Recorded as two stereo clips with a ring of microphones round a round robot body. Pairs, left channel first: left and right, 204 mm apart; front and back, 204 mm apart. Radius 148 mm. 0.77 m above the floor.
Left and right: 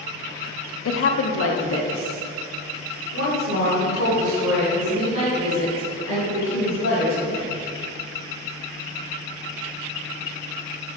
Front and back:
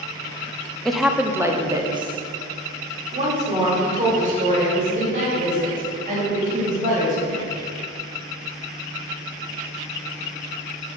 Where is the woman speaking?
90° left, 0.8 m; by 7.5 s 135° left, 4 m.